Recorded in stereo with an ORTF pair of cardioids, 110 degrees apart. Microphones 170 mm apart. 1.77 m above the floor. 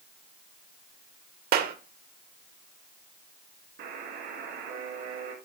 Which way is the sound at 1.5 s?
65° right.